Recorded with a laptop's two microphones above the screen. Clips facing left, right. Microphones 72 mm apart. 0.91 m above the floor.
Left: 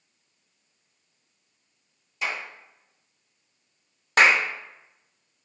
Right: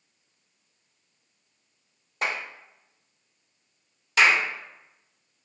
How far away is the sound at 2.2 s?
About 0.6 m.